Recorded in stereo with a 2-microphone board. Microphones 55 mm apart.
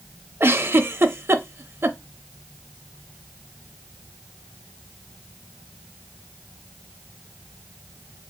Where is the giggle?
50° right (ahead or behind), 0.5 m.